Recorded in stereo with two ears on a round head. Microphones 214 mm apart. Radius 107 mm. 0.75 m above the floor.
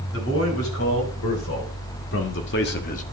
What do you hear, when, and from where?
0.1 s a man speaking: 65° left (ahead or behind), 5 m; by 3.0 s 30° left (ahead or behind), 0.9 m